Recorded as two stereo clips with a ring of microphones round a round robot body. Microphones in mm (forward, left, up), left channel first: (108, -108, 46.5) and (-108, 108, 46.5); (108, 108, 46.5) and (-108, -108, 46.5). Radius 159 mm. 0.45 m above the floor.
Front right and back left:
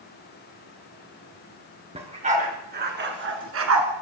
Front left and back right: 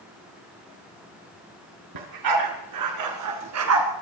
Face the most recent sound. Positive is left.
turn(degrees=180)